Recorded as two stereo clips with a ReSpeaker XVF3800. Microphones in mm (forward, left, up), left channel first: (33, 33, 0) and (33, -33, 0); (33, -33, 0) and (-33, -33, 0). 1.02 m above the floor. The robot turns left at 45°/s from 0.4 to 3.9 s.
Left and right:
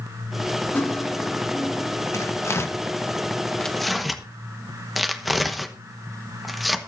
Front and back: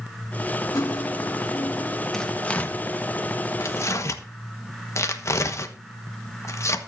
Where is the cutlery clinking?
25° left, 1.5 m; by 2.0 s 30° right, 1.5 m.